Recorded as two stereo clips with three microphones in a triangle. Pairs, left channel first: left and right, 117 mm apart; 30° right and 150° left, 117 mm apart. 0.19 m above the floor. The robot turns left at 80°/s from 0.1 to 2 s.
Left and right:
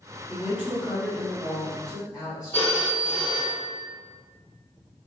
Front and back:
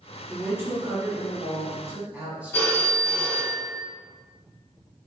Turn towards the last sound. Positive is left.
turn(degrees=30)